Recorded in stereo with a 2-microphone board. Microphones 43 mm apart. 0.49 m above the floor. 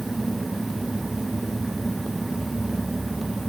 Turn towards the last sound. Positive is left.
No sound to turn to.